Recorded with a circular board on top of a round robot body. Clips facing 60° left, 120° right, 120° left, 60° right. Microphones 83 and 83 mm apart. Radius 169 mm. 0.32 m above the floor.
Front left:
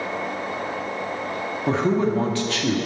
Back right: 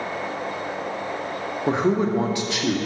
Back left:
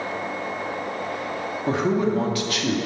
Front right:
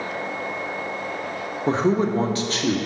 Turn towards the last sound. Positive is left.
turn(degrees=-65)